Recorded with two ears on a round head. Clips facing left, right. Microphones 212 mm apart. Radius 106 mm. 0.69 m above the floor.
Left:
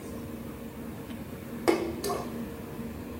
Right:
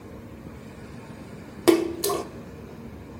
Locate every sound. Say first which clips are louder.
1.7 s a splash: right 7 dB; 50° right (ahead or behind), 0.8 m